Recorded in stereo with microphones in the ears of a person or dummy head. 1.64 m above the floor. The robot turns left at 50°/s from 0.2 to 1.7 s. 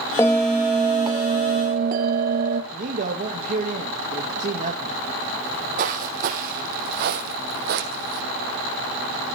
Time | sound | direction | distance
0.2 | a bell | 15° left | 1.3 m
2.7 | a man speaking | 45° right (ahead or behind) | 2 m
5.4 | footsteps | 45° right (ahead or behind) | 4 m